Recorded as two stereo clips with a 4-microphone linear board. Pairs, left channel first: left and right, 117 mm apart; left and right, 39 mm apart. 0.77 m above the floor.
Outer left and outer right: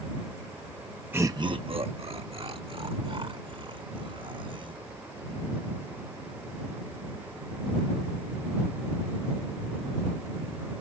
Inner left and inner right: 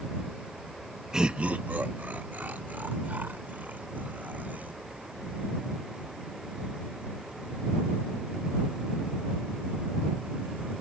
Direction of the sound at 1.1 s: 20° right (ahead or behind).